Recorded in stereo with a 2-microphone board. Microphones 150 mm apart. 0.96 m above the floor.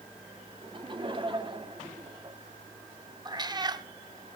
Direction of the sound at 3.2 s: 25° right (ahead or behind).